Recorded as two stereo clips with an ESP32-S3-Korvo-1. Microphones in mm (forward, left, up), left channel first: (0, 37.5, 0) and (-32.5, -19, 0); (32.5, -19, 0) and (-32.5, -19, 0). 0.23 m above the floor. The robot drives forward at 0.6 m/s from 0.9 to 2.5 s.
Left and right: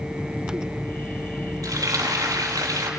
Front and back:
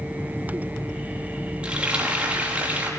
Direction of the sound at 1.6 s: 110° right.